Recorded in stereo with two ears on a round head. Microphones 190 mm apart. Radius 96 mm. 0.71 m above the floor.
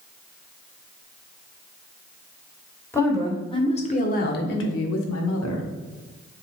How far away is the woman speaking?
About 2 m.